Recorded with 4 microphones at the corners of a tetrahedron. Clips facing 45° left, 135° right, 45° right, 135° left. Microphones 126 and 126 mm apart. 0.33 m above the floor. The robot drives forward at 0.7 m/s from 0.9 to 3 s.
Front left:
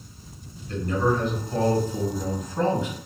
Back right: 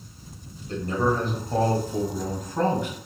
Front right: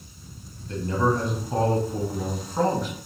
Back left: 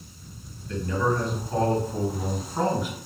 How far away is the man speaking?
About 1.3 m.